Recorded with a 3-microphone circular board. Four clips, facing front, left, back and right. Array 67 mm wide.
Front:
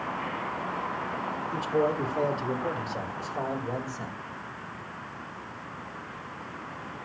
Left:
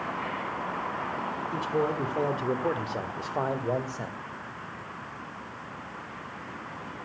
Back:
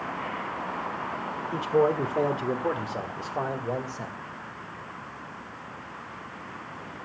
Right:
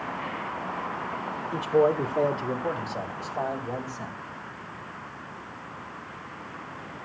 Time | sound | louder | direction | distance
1.5 | a man speaking | right 7 dB, back 4 dB | 145° right | 1.3 m